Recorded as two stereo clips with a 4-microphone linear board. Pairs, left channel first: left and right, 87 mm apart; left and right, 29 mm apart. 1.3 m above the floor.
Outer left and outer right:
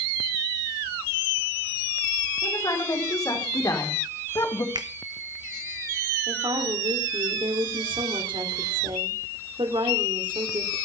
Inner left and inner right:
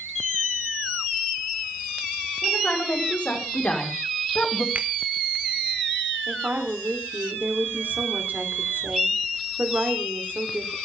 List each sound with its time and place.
2.4 s a woman speaking: 45° left (ahead or behind), 5.5 m
4.8 s a finger snap: 55° right (ahead or behind), 1.2 m
6.3 s a woman speaking: 85° right, 3.5 m